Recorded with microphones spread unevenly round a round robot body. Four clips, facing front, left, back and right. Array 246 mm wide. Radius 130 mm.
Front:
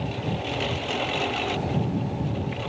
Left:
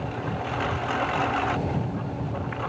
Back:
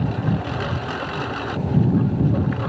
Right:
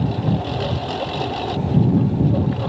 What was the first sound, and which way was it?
A lawn mower, 125° right.